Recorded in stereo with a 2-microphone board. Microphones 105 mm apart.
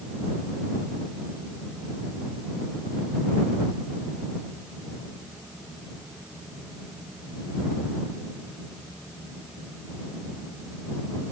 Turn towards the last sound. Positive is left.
No sound to turn to.